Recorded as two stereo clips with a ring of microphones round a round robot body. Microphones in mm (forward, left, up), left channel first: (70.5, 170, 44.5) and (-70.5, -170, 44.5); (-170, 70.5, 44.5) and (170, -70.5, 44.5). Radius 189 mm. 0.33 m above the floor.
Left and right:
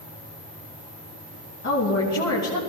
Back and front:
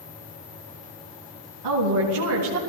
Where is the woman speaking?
15° left, 3 m.